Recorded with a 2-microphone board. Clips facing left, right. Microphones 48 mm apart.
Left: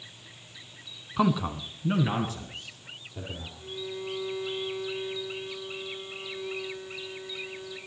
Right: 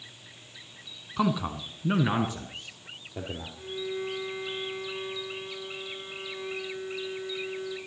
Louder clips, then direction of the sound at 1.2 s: Left 2 dB; 10° left (ahead or behind).